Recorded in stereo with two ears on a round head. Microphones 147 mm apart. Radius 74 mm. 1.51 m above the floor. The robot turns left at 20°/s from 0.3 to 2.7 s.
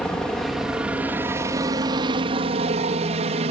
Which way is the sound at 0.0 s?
5° left.